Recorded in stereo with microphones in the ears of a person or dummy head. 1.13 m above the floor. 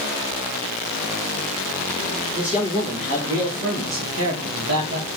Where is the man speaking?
25° right (ahead or behind), 2.5 m; by 5.1 s 65° right (ahead or behind), 1.6 m.